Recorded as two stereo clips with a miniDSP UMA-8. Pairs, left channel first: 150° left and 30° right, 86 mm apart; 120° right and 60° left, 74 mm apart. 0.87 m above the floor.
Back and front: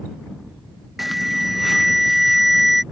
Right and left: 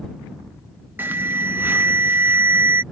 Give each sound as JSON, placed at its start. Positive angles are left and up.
{"t": 1.0, "sound": "an alarm", "azimuth_deg": 55}